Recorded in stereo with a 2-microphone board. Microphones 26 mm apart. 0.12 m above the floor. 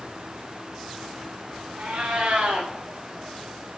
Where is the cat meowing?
85° right, 3.5 m.